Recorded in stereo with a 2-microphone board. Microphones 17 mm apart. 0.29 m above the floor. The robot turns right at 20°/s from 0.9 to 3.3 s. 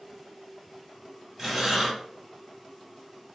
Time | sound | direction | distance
1.4 | breathing | 15° right (ahead or behind) | 1.5 m